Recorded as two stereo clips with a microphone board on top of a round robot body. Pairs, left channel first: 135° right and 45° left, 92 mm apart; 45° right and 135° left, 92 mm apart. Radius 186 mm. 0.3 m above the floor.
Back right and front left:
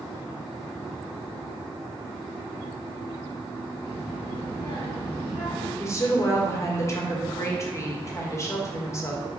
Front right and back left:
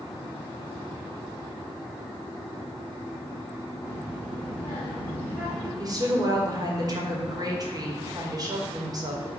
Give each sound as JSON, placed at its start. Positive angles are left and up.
{"t": 3.8, "sound": "a child speaking", "azimuth_deg": -140, "distance_m": 3.0}
{"t": 5.8, "sound": "a woman speaking", "azimuth_deg": 170, "distance_m": 2.0}